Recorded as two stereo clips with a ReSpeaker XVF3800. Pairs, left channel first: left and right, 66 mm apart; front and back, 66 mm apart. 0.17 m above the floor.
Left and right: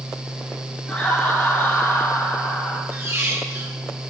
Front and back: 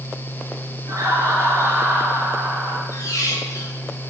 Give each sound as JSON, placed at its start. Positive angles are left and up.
{"t": 0.9, "sound": "laughter", "azimuth_deg": 165, "distance_m": 3.0}
{"t": 2.9, "sound": "a squeak", "azimuth_deg": -40, "distance_m": 3.0}